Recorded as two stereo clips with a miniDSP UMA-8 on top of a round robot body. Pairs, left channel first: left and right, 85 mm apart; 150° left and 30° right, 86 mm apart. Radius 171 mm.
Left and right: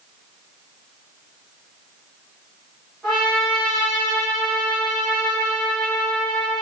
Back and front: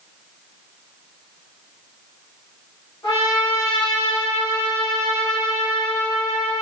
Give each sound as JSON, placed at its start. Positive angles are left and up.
{"t": 3.0, "sound": "a trumpet", "azimuth_deg": 180, "distance_m": 1.3}